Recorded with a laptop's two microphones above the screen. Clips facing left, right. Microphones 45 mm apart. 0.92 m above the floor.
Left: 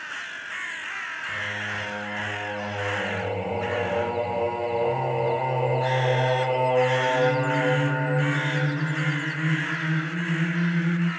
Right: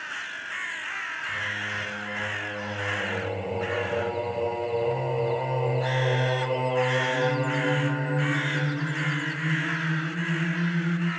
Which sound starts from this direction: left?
Singing, at 1.3 s.